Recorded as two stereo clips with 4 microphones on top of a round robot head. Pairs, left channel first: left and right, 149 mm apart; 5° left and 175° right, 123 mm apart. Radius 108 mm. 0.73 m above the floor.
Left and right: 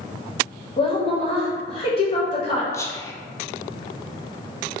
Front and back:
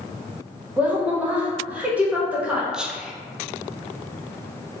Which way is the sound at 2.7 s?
110° left.